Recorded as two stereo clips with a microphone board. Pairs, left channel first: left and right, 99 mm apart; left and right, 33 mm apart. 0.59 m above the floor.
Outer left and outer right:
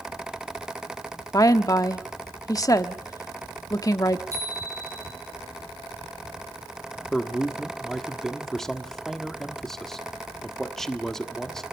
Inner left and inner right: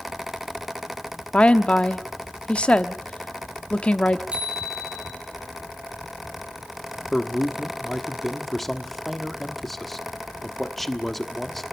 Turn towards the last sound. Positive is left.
turn(degrees=5)  # may be behind; listen again after turning